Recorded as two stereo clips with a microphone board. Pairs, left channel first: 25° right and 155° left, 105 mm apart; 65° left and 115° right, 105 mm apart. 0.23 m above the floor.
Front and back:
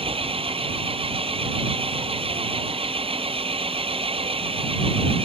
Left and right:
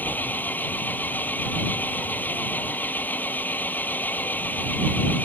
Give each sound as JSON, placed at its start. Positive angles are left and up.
{"t": 0.0, "sound": "an engine running", "azimuth_deg": 140}